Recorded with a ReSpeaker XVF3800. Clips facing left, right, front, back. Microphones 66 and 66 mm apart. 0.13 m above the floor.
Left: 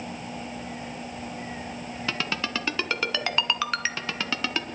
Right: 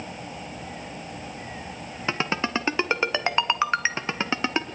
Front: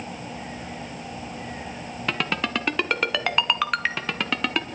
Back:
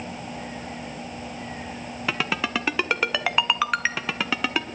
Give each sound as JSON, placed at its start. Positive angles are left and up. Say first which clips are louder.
{"t": 2.1, "sound": "a ringtone", "louder": "right 5 dB, even", "azimuth_deg": -100, "distance_m": 0.9}